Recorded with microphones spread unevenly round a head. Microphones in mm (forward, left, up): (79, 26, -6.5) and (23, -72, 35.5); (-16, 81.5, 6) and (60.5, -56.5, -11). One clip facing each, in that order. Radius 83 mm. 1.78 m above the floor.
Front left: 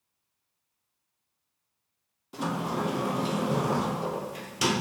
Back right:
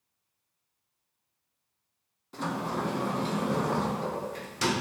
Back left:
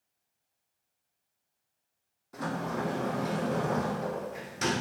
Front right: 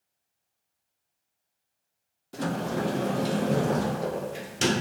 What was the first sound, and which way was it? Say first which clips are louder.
A sliding door: front left 2 dB, front right 4 dB; 45° right.